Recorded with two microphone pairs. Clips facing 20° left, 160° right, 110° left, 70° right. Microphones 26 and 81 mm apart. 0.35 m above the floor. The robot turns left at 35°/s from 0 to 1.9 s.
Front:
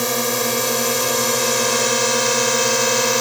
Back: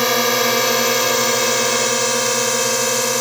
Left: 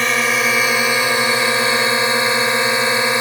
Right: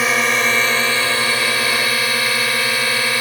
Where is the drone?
155° right; by 3.2 s 85° left.